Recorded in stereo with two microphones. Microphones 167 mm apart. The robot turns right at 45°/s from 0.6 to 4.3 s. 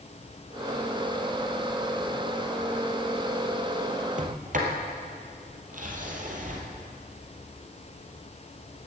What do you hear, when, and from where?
4.2 s a sliding door: 50° right (ahead or behind), 2 m; by 6.6 s 55° right (ahead or behind), 2 m